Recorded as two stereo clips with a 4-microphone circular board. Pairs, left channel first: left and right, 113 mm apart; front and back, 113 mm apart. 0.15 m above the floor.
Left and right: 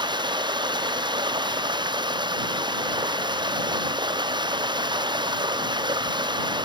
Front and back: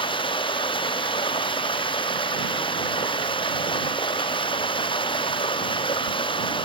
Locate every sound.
0.0 s running water: 45° right